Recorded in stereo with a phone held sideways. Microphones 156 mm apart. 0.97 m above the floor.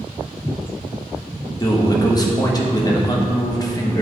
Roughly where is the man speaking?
Left.